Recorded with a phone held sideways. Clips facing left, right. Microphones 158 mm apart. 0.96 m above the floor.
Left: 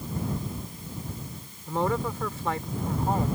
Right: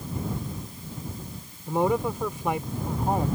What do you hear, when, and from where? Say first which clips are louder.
1.7 s a woman speaking: right 3 dB; 15° right (ahead or behind)